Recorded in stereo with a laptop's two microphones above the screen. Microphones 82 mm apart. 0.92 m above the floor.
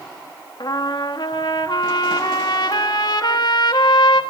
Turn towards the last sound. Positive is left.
turn(degrees=60)  # may be behind; listen again after turning